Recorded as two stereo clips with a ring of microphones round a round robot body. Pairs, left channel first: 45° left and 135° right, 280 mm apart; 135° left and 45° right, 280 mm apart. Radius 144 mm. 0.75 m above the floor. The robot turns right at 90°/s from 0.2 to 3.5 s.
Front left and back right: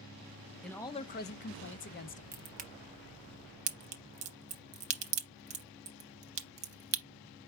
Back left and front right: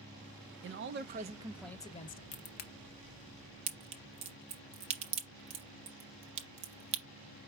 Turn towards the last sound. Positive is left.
turn(degrees=-105)